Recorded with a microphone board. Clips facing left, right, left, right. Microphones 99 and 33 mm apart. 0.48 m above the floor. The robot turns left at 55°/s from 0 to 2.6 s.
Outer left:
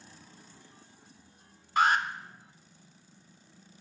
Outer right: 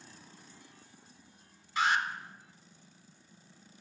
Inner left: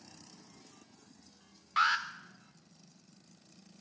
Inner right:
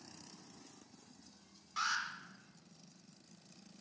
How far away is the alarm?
About 0.6 m.